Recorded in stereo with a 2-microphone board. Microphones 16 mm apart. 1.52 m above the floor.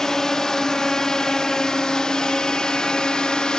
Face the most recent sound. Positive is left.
turn(degrees=60)  # may be behind; listen again after turning